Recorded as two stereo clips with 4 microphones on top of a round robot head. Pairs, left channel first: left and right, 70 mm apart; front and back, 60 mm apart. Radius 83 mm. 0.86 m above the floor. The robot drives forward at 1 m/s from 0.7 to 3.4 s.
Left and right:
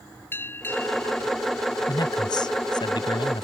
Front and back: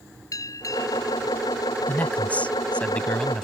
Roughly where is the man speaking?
Ahead left.